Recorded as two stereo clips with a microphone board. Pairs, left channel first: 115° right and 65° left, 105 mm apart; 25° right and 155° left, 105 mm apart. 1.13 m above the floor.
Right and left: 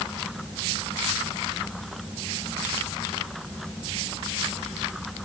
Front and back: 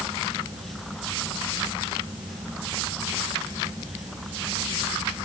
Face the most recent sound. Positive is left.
No sound to turn to.